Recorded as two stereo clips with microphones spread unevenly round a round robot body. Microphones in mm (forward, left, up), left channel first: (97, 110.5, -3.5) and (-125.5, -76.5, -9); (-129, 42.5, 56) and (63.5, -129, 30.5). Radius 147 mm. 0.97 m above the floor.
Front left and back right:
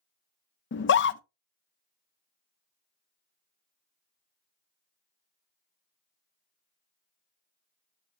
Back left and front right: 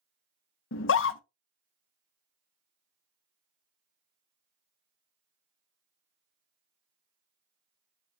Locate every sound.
0.7 s a scream: 90° left, 0.6 m